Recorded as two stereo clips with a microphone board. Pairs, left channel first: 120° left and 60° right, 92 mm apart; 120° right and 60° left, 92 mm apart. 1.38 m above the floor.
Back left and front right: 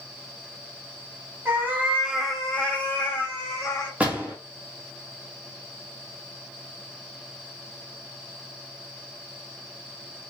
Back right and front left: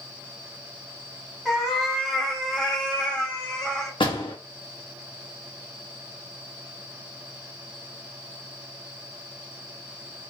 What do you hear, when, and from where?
1.4 s a cat meowing: 30° right, 0.9 m; by 3.9 s 160° left, 1.2 m
4.0 s a door slam: 135° right, 1.0 m